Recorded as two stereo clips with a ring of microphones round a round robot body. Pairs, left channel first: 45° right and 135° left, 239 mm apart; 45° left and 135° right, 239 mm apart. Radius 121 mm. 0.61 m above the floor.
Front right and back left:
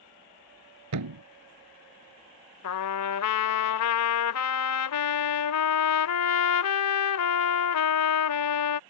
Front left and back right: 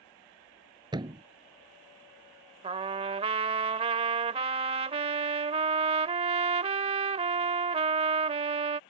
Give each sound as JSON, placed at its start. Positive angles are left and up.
{"t": 0.9, "sound": "a thud", "azimuth_deg": 150}
{"t": 2.6, "sound": "a trumpet", "azimuth_deg": -70}